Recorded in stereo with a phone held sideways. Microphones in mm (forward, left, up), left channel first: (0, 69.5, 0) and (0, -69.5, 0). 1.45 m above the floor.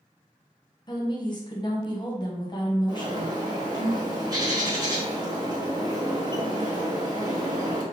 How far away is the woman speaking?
About 0.9 m.